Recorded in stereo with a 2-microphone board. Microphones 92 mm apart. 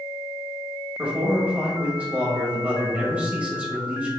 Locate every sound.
1.0 s a man speaking: 15° right (ahead or behind), 1.3 m